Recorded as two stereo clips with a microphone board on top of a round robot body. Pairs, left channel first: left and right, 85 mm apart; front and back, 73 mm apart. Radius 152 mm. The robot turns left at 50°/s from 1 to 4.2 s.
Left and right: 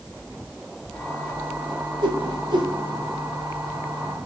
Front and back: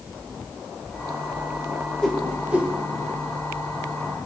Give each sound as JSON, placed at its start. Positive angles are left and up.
{"t": 2.0, "sound": "a whoosh", "azimuth_deg": -80, "distance_m": 2.5}